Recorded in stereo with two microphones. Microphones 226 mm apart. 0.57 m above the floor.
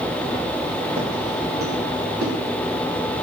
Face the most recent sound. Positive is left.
turn(degrees=-80)